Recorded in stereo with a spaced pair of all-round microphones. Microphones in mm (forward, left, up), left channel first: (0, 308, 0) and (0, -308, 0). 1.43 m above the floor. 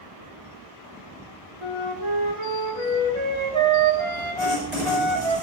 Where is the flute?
50° right (ahead or behind), 1.8 m.